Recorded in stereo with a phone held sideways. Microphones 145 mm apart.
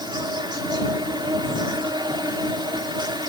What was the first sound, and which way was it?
An insect, 30° right (ahead or behind).